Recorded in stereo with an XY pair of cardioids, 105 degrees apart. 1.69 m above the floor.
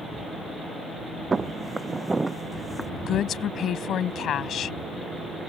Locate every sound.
1.3 s footsteps: 30° right; by 2.9 s 10° right
3.1 s a woman speaking: 60° left